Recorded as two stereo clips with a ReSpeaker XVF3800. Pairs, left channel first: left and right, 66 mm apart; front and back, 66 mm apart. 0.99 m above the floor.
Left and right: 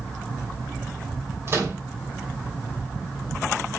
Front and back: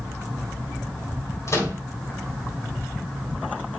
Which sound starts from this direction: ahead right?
A microwave, at 1.5 s.